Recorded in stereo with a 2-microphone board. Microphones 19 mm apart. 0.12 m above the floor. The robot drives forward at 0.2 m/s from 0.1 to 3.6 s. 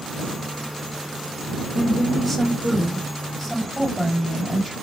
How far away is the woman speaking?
About 4.5 m.